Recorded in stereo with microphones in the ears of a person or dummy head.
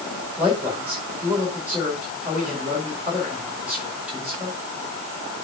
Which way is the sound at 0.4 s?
5° right (ahead or behind).